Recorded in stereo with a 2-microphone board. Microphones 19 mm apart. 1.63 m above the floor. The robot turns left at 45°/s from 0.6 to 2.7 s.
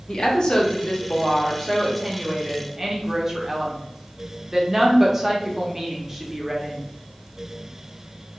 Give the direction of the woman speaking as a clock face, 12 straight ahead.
10 o'clock.